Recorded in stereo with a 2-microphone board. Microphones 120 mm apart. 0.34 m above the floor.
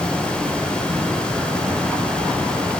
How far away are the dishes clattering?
I don't hear dishes clattering.